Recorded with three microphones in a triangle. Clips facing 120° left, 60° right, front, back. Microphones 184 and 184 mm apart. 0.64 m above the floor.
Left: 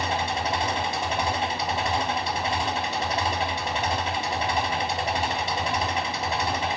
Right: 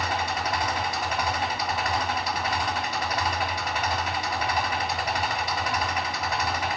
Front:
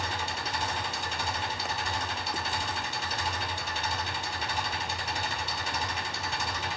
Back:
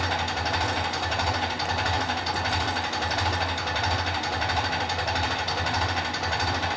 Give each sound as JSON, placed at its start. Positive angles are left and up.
{"t": 0.0, "sound": "an engine running", "azimuth_deg": -175, "distance_m": 3.0}